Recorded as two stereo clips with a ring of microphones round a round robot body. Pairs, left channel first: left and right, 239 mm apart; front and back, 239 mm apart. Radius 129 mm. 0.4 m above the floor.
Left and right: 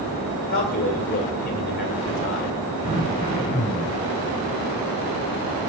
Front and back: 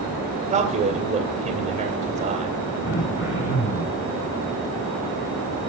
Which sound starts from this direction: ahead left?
Throat clearing, at 2.8 s.